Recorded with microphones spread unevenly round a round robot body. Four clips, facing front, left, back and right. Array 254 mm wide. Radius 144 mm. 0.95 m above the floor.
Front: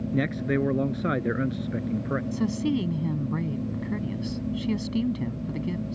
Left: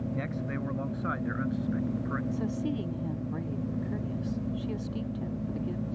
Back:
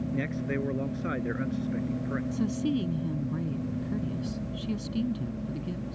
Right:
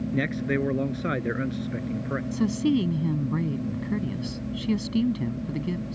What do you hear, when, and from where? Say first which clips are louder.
0.1 s a man speaking: right 8 dB, front 8 dB; 20° right; by 2.2 s 10° right
2.3 s a woman speaking: right 8 dB, front 2 dB; 55° right